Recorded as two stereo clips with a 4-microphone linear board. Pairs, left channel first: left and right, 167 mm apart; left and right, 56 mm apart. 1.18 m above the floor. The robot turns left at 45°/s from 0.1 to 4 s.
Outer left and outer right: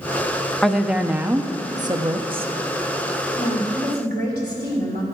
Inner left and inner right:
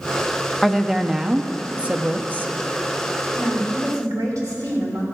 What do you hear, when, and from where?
0.6 s a woman speaking: 5° left, 0.6 m; by 2.5 s 75° right, 0.6 m
3.4 s a woman speaking: 55° right (ahead or behind), 3.5 m; by 5.0 s 85° right, 3.5 m